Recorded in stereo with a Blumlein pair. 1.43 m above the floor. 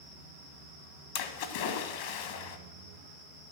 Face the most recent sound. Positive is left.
turn(degrees=50)